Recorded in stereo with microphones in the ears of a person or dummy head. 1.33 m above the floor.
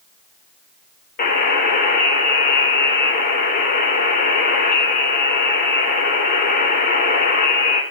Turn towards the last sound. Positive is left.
turn(degrees=45)  # may be behind; listen again after turning